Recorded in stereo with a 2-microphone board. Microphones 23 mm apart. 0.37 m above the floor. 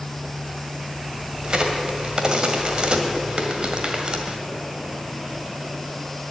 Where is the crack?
40° right (ahead or behind), 1.8 m.